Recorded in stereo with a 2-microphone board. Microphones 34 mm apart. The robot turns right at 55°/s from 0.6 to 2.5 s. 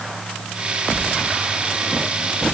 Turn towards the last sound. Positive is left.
No sound to turn to.